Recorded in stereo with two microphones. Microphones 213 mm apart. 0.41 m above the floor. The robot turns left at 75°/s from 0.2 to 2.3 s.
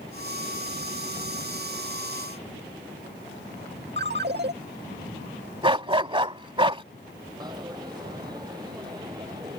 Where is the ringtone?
55° right (ahead or behind).